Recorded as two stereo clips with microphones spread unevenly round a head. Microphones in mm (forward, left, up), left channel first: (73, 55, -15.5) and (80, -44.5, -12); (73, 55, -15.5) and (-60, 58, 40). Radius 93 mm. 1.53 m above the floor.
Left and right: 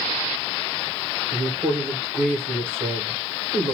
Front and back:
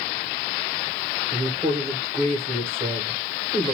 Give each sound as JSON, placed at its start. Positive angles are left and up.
{"t": 1.3, "sound": "a woman speaking", "azimuth_deg": -130, "distance_m": 1.1}